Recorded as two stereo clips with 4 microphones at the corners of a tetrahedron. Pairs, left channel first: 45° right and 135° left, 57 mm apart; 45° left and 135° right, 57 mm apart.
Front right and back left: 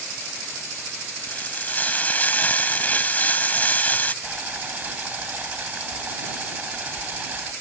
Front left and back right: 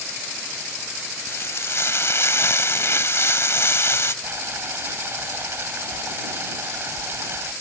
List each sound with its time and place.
1.3 s frying: 10° left
4.2 s boiling: 170° right